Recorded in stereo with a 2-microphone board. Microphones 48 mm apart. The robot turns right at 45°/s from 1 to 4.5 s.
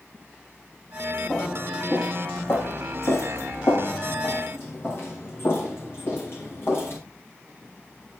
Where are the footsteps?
15° right (ahead or behind), 9 m; by 7.0 s 55° left (ahead or behind), 6 m.